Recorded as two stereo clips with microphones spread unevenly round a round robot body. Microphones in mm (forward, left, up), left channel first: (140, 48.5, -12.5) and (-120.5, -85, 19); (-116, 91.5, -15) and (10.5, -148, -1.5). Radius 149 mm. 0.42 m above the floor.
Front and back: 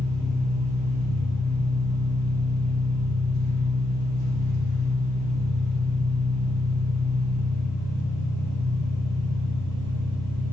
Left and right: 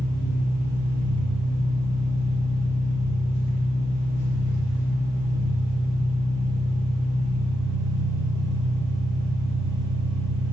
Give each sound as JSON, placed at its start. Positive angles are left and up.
{"t": 0.0, "sound": "an engine running", "azimuth_deg": 165, "distance_m": 3.5}